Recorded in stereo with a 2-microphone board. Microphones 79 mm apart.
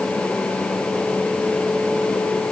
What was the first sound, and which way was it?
Only background noise.